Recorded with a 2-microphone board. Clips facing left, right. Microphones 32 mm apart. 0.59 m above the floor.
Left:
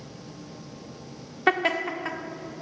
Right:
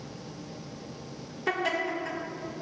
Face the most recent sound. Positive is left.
turn(degrees=55)  # may be behind; listen again after turning